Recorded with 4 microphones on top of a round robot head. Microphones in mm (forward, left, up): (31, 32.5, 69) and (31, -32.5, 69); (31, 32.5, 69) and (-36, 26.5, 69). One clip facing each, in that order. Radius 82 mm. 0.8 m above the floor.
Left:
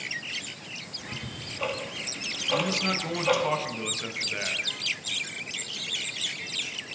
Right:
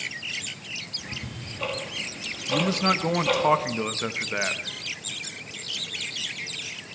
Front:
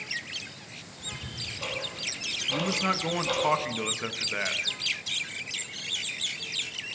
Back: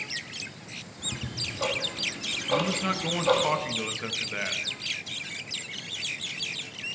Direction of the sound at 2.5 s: 70° right.